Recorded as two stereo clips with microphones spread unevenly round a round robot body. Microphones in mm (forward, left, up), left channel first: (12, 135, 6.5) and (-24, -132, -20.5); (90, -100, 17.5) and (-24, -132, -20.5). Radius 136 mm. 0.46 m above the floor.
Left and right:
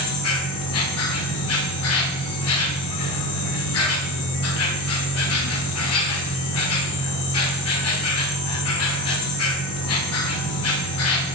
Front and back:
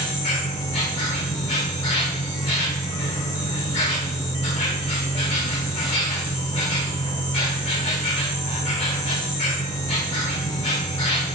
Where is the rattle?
No rattle in this recording.